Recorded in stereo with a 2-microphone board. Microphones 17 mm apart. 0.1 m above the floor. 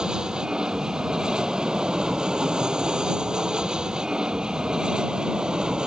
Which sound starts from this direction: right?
An aircraft, at 0.0 s.